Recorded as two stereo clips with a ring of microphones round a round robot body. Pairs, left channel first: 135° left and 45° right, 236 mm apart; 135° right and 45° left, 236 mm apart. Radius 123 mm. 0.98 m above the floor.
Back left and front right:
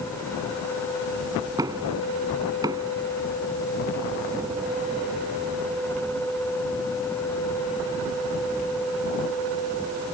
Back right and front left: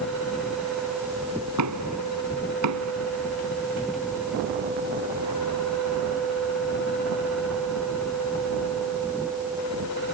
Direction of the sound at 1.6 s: 30° left.